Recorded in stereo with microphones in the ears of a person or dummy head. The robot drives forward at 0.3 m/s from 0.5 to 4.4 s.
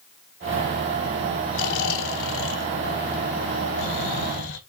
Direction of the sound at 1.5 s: 85° left.